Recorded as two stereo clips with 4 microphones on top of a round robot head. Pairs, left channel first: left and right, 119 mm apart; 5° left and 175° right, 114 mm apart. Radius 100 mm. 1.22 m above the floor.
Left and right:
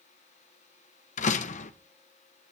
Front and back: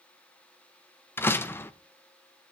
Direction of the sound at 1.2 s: 75° left.